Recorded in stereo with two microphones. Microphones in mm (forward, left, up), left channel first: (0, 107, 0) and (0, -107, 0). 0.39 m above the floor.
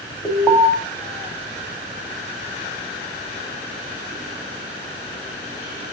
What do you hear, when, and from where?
0.2 s an alarm: 10° left (ahead or behind), 3 m